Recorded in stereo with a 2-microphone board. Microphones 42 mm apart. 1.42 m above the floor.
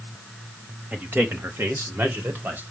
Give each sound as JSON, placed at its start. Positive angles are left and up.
{"t": 0.9, "sound": "a man speaking", "side_deg": -40, "distance_m": 1.8}